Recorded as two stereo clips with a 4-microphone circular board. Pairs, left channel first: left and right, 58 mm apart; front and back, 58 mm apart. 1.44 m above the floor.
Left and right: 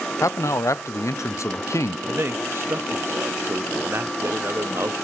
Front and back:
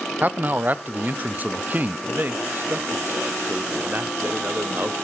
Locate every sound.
0.2 s a man speaking: 120° left, 0.5 m
2.1 s a man speaking: 130° right, 0.6 m